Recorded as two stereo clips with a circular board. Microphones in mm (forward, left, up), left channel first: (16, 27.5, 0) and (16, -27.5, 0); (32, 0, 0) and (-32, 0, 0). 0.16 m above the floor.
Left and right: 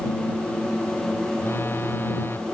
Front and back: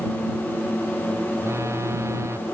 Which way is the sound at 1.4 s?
135° left.